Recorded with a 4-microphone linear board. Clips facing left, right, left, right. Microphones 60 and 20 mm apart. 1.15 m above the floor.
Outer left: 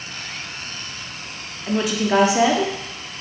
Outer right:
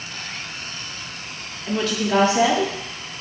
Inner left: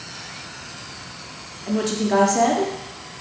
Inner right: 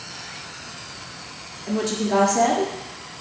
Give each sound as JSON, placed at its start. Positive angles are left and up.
{"t": 1.7, "sound": "a woman speaking", "side_deg": 15, "distance_m": 0.7}